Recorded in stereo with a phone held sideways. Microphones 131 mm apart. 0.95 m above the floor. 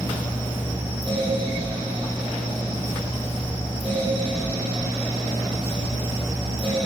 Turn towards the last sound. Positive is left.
turn(degrees=-45)  # may be behind; listen again after turning